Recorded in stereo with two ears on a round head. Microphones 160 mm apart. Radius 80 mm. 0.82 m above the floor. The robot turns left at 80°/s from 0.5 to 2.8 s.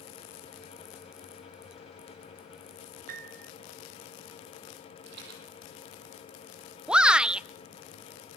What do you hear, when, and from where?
3.1 s a piano: 45° right (ahead or behind), 1.0 m
5.1 s a rattle: 65° right (ahead or behind), 6 m
6.9 s a shout: 5° right (ahead or behind), 0.6 m